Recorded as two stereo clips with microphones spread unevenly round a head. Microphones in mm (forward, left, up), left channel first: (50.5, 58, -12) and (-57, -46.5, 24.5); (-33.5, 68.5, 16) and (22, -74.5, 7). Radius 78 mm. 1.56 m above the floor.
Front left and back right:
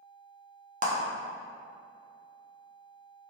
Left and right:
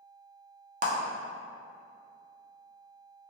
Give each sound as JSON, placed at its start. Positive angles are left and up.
{"t": 0.8, "sound": "a clap", "azimuth_deg": -105, "distance_m": 0.6}